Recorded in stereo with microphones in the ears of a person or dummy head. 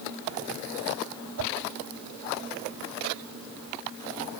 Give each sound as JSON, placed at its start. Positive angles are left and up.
{"t": 1.4, "sound": "a whoosh", "side_deg": -75, "distance_m": 1.2}